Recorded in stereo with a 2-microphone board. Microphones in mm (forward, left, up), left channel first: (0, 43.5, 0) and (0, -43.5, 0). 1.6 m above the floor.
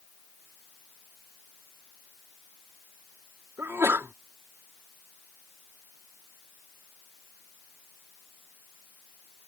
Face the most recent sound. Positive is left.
turn(degrees=-30)  # may be behind; listen again after turning